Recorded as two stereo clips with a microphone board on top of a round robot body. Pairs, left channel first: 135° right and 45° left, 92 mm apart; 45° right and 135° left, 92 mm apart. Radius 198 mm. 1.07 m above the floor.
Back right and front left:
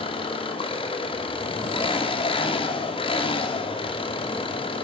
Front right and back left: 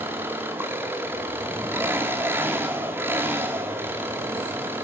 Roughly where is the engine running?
Behind.